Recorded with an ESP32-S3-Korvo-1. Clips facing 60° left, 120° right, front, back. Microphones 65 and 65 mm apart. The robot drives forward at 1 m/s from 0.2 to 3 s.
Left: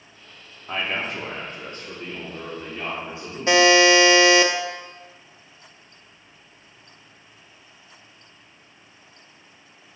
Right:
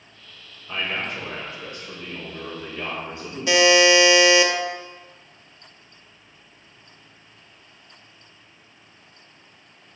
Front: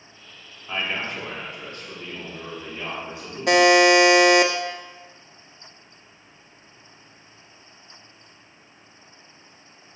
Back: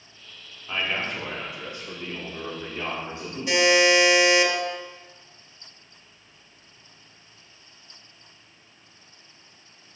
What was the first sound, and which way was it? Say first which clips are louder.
A man speaking: left 1 dB, even; 85° left.